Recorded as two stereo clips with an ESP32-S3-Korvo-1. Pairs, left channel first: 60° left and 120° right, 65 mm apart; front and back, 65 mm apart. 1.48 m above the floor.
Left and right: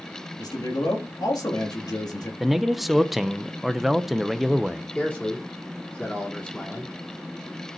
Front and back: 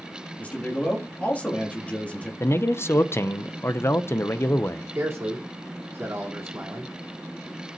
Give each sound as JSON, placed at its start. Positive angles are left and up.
{"t": 0.4, "sound": "a man speaking", "azimuth_deg": 70, "distance_m": 2.5}
{"t": 2.4, "sound": "a man speaking", "azimuth_deg": -35, "distance_m": 0.6}
{"t": 5.0, "sound": "a man speaking", "azimuth_deg": 125, "distance_m": 3.5}